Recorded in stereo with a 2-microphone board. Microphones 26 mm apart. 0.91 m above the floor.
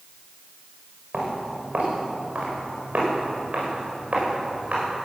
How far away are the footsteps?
About 6.5 m.